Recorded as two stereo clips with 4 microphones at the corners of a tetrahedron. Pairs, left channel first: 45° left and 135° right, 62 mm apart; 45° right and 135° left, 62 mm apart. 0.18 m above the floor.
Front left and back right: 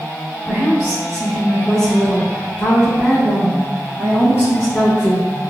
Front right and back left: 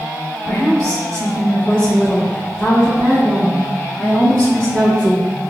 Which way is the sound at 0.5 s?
110° right.